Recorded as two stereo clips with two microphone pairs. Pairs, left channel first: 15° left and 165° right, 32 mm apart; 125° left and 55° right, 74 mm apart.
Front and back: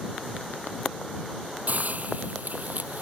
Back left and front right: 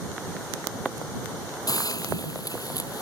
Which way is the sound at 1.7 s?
160° left.